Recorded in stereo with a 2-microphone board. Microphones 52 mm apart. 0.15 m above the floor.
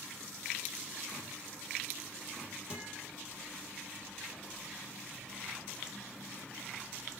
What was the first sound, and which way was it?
A guitar, 20° right (ahead or behind).